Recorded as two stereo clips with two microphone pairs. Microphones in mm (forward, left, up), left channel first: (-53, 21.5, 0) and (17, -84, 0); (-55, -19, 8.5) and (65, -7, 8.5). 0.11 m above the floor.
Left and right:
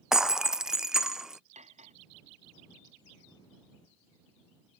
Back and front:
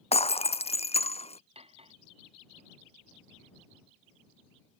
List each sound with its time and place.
0.1 s breaking glass: 140° right
1.6 s cutlery clinking: 30° right